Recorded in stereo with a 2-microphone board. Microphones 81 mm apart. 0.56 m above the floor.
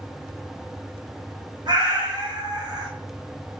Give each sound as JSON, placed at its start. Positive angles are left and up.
{"t": 1.7, "sound": "a cat meowing", "side_deg": -65, "distance_m": 1.1}